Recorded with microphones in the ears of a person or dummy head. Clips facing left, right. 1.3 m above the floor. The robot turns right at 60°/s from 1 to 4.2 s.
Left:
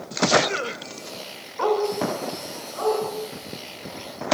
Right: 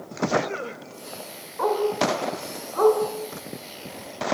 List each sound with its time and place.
1.6 s a dog barking: centre (ahead or behind), 6 m; by 4.3 s 25° right (ahead or behind), 6 m